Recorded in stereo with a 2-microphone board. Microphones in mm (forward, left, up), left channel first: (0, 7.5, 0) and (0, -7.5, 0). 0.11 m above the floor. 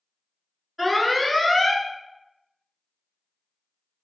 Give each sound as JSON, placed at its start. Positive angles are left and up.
{"t": 0.8, "sound": "an alarm", "side_deg": -5, "distance_m": 0.8}